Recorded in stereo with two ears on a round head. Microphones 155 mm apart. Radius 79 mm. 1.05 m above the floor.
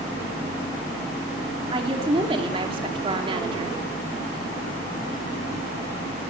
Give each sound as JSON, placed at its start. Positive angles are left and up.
{"t": 1.7, "sound": "a woman speaking", "side_deg": -30, "distance_m": 2.5}